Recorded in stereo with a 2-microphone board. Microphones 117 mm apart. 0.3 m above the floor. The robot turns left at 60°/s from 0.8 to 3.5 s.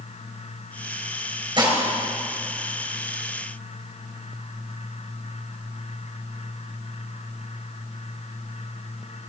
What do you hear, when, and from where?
1.6 s dishes clattering: 40° right (ahead or behind), 3.5 m; by 1.8 s 25° right (ahead or behind), 3.5 m